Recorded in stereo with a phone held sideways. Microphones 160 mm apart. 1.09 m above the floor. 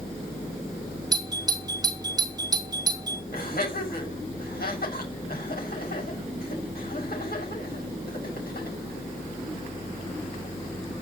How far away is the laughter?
About 7 m.